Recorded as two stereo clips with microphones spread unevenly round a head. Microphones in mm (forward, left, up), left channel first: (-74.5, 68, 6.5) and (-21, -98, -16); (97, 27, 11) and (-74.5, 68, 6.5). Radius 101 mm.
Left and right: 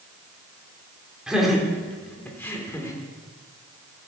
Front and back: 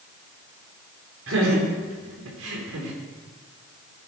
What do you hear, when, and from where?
1.3 s laughter: 160° right, 4.5 m; by 3.0 s straight behind, 5 m